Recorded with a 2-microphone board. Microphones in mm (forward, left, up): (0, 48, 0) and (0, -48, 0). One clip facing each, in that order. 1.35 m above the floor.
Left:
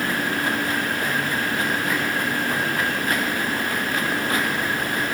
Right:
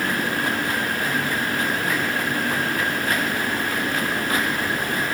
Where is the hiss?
I don't hear a hiss.